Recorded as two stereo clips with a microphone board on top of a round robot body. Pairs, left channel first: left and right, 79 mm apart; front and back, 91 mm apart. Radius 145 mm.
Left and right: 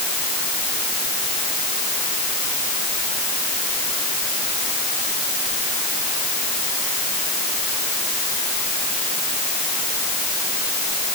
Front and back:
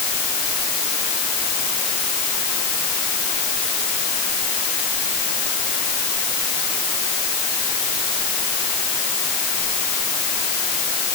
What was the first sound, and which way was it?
Only background noise.